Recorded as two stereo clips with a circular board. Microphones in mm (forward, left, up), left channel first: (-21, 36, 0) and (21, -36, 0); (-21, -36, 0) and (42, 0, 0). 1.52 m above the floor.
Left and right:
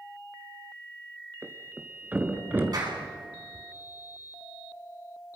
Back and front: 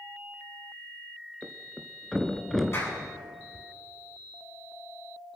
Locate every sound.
1.4 s a thud: 70° right, 1.5 m
2.7 s a clap: 100° right, 9.5 m